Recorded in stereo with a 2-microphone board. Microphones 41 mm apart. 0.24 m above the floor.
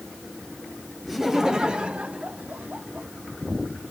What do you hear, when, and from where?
1.1 s laughter: centre (ahead or behind), 1.1 m; by 3.1 s 50° right (ahead or behind), 1.7 m